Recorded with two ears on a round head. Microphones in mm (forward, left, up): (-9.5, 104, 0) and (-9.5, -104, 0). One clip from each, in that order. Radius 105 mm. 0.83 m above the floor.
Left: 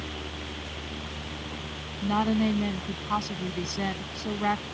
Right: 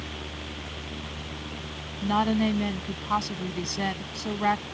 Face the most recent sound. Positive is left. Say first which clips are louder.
# right 2 dB
turn(degrees=-15)  # may be behind; listen again after turning